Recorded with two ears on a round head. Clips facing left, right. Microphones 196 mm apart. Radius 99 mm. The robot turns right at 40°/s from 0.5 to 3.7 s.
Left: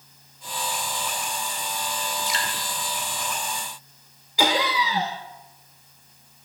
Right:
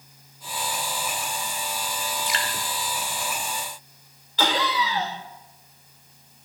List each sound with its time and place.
2.3 s dripping: 45° right (ahead or behind), 0.7 m; by 2.6 s 60° right (ahead or behind), 0.7 m
4.4 s laughter: 10° left (ahead or behind), 0.5 m